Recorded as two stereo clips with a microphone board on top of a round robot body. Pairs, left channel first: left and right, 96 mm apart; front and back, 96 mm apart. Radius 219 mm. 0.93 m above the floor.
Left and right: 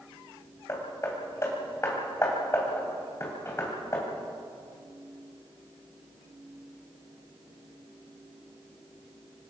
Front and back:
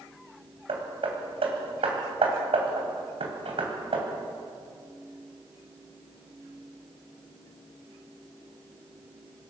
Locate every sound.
0.7 s hammering: 155° left, 3 m